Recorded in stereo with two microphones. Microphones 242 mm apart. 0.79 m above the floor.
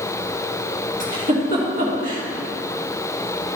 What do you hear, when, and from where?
1.0 s a giggle: 35° right (ahead or behind), 1.8 m